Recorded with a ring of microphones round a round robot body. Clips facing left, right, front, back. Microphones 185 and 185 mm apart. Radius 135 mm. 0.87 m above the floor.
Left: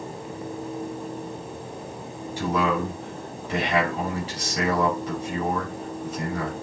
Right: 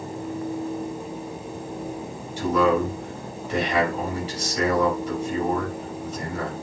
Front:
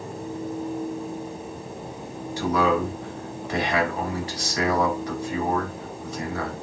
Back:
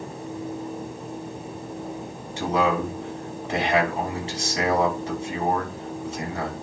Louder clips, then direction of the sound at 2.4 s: Right 4 dB, front 1 dB; 115° left.